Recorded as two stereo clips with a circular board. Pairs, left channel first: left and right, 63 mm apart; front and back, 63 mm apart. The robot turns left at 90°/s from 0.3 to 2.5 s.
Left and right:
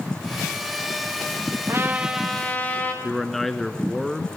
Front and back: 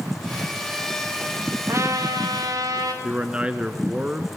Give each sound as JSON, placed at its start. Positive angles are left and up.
{"t": 1.7, "sound": "a trumpet", "azimuth_deg": -130, "distance_m": 3.5}
{"t": 3.0, "sound": "a man speaking", "azimuth_deg": 170, "distance_m": 1.1}